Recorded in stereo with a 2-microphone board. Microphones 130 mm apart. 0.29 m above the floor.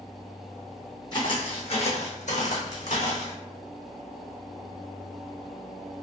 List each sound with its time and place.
1.1 s footsteps: 35° left (ahead or behind), 0.9 m; by 3.4 s 65° left (ahead or behind), 1.1 m